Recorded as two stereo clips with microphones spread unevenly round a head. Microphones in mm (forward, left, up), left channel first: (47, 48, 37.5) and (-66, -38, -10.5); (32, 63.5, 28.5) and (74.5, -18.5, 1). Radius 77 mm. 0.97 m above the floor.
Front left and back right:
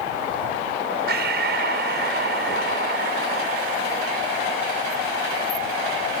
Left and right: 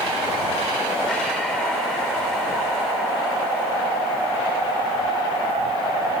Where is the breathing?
155° right.